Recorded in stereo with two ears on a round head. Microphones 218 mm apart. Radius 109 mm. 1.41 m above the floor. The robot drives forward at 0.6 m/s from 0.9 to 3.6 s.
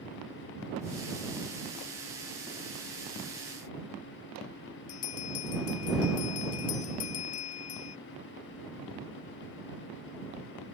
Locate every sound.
4.9 s a bell: 65° left (ahead or behind)